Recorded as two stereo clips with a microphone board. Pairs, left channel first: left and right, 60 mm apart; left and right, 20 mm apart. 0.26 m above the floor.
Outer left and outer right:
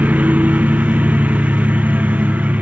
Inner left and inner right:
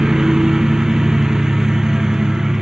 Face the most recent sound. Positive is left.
turn(degrees=-25)  # may be behind; listen again after turning